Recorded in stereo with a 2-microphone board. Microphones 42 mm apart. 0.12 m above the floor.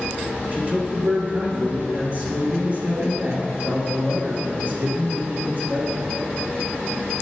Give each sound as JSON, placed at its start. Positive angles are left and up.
{"t": 0.5, "sound": "a man speaking", "side_deg": -35, "distance_m": 1.9}